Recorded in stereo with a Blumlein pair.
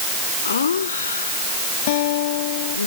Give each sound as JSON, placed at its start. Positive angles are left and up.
{"t": 0.5, "sound": "laughter", "azimuth_deg": 70}
{"t": 1.9, "sound": "a guitar", "azimuth_deg": 50}